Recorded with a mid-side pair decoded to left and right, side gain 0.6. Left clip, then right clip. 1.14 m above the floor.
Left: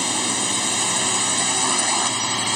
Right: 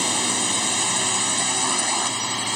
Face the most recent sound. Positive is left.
turn(degrees=20)